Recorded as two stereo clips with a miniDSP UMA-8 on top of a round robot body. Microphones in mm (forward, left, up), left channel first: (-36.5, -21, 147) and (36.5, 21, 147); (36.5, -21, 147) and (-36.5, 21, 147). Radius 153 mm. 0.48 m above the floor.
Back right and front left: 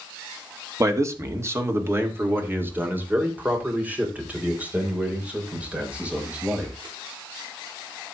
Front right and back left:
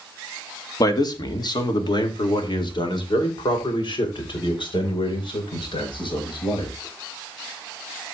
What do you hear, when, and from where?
0.8 s a man speaking: 10° right, 2.0 m; by 6.7 s 45° right, 5.5 m